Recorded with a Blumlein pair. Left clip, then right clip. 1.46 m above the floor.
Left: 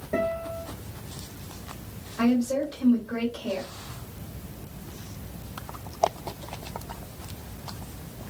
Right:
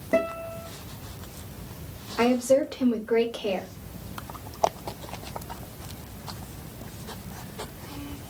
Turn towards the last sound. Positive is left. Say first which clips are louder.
# right 4 dB
turn(degrees=-40)